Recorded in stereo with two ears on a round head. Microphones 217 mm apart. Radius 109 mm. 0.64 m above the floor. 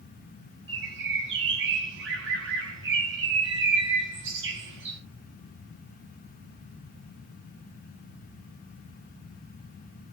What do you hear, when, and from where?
0.7 s a bird: 50° right (ahead or behind), 4 m